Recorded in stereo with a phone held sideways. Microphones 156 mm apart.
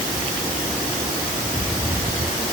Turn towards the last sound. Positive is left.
No sound to turn to.